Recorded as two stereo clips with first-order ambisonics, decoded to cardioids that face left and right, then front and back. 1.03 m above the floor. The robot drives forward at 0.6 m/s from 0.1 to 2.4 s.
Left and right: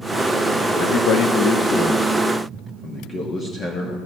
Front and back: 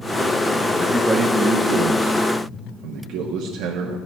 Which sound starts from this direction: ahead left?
A man speaking, at 0.8 s.